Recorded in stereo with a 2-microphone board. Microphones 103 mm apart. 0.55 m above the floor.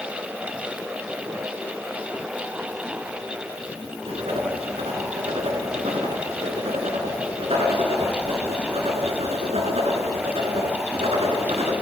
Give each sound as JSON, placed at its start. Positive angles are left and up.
{"t": 4.1, "sound": "writing", "side_deg": -85, "distance_m": 2.0}